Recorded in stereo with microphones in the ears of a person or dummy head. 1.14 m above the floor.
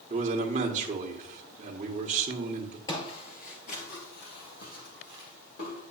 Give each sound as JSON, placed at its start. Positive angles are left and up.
{"t": 0.1, "sound": "a man speaking", "side_deg": -30, "distance_m": 1.2}
{"t": 2.9, "sound": "footsteps", "side_deg": 15, "distance_m": 1.6}